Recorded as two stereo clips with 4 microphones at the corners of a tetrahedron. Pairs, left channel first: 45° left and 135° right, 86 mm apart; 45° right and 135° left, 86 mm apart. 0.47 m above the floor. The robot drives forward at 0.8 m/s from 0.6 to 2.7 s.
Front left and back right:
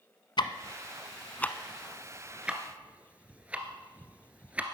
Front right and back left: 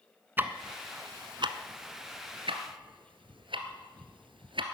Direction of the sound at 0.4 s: 70° left.